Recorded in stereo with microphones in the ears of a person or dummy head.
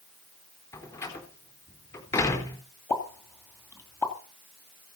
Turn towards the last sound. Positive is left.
turn(degrees=10)  # may be behind; listen again after turning